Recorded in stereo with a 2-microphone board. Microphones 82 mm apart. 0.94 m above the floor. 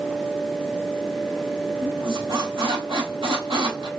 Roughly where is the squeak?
Right.